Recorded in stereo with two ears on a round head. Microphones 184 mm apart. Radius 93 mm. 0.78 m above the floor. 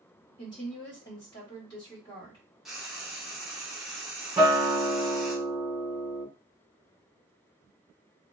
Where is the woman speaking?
20° left (ahead or behind), 1.4 m.